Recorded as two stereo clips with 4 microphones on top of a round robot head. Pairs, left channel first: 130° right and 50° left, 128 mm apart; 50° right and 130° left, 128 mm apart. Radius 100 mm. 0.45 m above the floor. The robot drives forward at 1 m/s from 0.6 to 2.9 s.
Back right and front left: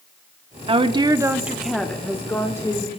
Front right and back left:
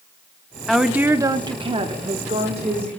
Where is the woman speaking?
40° left, 1.0 m; by 3.0 s 165° left, 1.9 m.